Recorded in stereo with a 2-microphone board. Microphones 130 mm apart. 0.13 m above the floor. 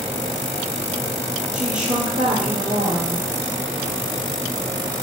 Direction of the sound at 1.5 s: 65° right (ahead or behind).